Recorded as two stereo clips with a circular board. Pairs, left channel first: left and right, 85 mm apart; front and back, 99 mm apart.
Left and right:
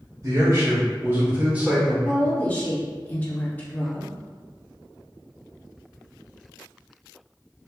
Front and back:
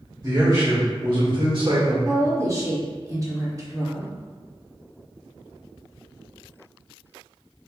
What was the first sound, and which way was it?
A man speaking, 130° right.